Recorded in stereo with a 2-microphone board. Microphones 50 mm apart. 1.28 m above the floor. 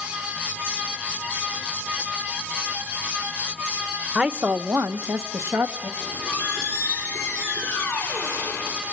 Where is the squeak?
30° left (ahead or behind), 8 m.